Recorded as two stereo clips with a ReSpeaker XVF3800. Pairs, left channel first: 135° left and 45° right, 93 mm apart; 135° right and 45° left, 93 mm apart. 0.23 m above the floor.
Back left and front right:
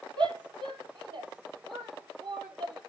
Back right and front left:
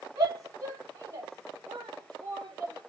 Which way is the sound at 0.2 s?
10° right.